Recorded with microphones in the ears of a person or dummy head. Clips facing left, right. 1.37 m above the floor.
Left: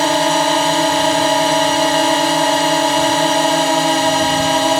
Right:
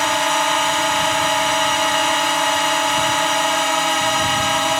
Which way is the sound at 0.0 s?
25° left (ahead or behind).